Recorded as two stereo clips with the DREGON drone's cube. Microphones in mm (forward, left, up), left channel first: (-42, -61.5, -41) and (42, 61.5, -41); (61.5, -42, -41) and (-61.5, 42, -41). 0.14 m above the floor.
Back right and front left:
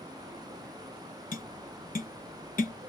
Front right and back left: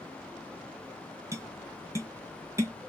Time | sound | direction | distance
1.3 | tapping | 145° right | 0.5 m